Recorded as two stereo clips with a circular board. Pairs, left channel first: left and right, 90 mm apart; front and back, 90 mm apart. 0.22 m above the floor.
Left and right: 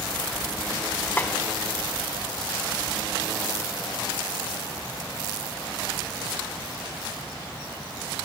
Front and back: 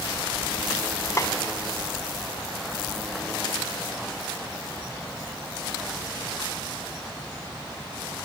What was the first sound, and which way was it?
A snare drum, 30° left.